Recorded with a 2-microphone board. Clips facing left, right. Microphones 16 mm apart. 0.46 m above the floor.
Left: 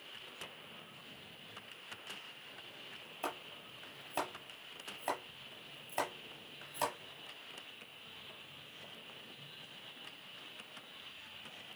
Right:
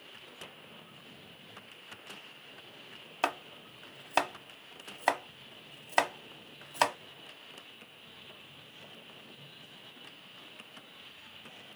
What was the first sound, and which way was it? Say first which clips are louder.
Chopping: right 10 dB; 60° right (ahead or behind).